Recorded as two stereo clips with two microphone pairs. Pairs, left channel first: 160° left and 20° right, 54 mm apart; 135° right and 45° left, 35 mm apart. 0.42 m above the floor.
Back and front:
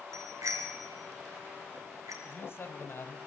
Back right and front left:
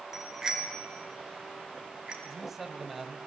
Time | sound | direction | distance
0.1 | a bicycle bell | 35° right | 4.5 m
2.2 | a man speaking | 125° left | 2.5 m